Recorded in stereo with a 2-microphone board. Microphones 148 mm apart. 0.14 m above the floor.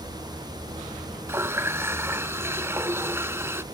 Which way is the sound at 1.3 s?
20° right (ahead or behind).